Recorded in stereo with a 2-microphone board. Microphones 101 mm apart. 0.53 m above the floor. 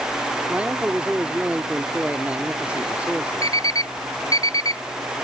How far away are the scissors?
No scissors in this recording.